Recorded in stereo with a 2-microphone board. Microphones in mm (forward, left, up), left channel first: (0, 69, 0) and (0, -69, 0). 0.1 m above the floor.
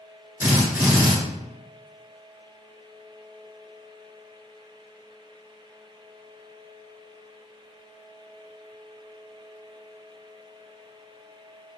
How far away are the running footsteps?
I don't hear running footsteps.